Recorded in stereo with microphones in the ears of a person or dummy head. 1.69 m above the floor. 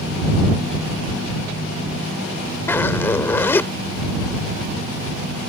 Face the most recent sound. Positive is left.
turn(degrees=10)  # may be behind; listen again after turning